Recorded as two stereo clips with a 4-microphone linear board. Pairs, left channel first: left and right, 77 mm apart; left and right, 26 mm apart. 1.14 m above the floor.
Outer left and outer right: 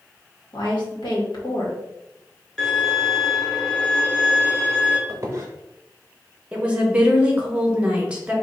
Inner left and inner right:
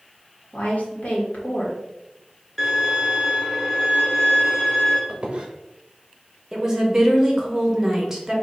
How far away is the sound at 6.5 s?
About 1.1 m.